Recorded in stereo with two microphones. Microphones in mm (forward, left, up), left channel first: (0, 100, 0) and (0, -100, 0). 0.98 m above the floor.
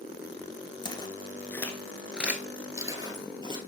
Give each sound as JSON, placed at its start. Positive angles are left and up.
{"t": 0.8, "sound": "footsteps", "side_deg": 25, "distance_m": 1.0}